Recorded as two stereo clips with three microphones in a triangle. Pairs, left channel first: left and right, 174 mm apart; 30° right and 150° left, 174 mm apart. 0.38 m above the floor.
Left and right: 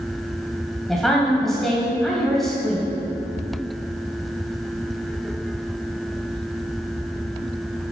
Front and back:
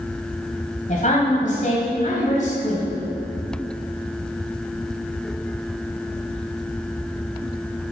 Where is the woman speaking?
Straight ahead, 2.5 m.